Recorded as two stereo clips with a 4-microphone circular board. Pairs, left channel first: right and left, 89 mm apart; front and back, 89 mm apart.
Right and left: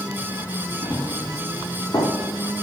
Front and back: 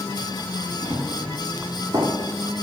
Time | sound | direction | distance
0.8 | running footsteps | 160° right | 4 m